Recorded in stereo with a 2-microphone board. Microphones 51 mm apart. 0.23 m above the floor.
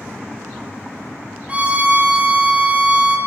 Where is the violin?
25° right (ahead or behind), 0.9 m.